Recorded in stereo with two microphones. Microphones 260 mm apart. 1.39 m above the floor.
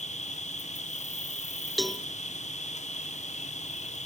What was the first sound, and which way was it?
An insect, 25° left (ahead or behind).